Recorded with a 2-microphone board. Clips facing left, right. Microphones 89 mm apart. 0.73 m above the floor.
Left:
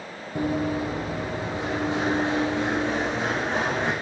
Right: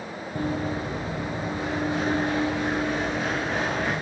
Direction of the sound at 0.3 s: 20° left (ahead or behind).